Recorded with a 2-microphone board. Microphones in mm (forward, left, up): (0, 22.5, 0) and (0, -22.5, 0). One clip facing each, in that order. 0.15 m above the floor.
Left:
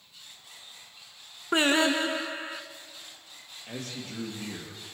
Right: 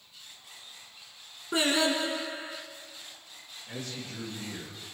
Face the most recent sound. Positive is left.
turn(degrees=70)  # may be behind; listen again after turning